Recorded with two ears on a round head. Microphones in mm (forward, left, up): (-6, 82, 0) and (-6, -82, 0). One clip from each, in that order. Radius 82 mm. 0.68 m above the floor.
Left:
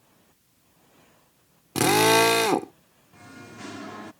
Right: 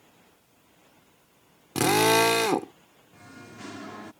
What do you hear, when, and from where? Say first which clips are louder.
1.8 s a drill: left 2 dB; 5° left (ahead or behind)
3.1 s singing: left 2 dB; centre (ahead or behind)